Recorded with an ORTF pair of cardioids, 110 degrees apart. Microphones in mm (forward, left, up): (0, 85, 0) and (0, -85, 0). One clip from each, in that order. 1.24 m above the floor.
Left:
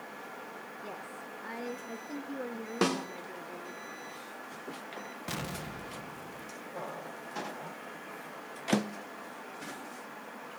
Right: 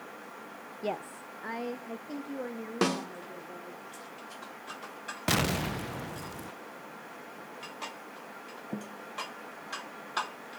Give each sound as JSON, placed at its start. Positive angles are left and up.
{"t": 0.8, "sound": "a woman speaking", "azimuth_deg": -55, "distance_m": 0.6}
{"t": 2.8, "sound": "a snare drum", "azimuth_deg": -5, "distance_m": 2.0}
{"t": 5.3, "sound": "an explosion", "azimuth_deg": -45, "distance_m": 0.5}